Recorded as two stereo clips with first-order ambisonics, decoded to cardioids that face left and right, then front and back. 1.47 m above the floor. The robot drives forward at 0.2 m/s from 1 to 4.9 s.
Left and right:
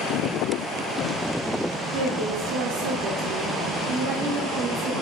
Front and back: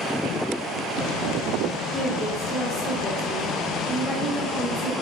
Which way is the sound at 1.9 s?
80° right.